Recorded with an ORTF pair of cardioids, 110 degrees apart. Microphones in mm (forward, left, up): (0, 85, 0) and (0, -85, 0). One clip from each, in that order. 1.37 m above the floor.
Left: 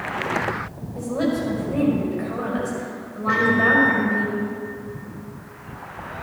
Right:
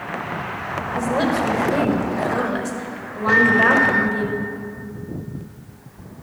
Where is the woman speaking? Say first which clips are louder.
Right 3 dB; 40° right, 5 m.